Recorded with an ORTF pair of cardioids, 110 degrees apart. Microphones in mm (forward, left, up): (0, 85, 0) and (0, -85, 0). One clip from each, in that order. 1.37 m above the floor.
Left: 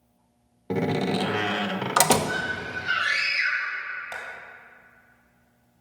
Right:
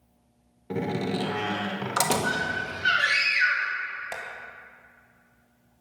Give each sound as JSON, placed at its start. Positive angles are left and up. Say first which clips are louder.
{"t": 0.7, "sound": "a door slam", "louder": "left 4 dB", "azimuth_deg": 25, "distance_m": 0.8}
{"t": 2.2, "sound": "a scream", "louder": "right 1 dB", "azimuth_deg": -65, "distance_m": 3.0}
{"t": 4.1, "sound": "tapping", "louder": "even", "azimuth_deg": -30, "distance_m": 2.0}